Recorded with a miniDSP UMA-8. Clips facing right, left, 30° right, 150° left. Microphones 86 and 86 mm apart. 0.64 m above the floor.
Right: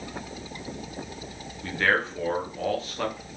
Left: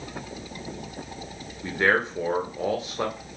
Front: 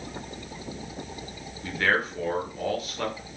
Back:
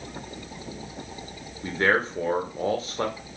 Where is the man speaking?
140° left, 0.6 m.